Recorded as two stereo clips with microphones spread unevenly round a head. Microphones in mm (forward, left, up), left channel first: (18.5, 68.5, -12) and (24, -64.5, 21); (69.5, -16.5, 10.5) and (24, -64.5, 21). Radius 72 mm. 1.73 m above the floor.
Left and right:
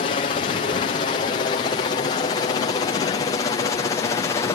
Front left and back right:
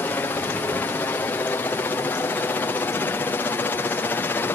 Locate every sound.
0.0 s a helicopter: 100° left; by 4.6 s 65° left